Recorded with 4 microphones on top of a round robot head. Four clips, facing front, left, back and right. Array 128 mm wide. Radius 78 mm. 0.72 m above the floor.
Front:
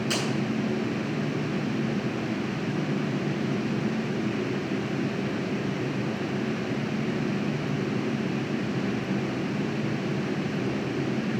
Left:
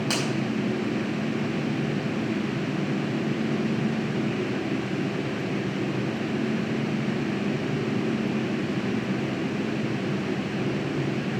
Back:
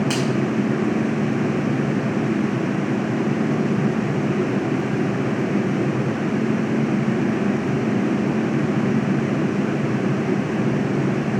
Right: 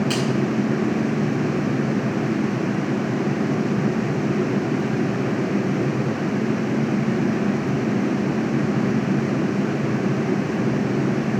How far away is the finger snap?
About 4.5 m.